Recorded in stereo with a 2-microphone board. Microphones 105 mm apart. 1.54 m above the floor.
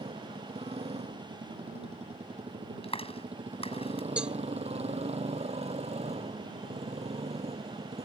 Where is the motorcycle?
75° right (ahead or behind).